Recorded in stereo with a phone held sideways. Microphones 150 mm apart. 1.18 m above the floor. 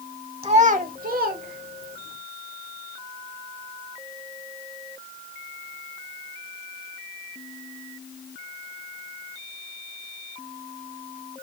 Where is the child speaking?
40° right (ahead or behind), 0.7 m; by 2.2 s 85° right, 1.5 m.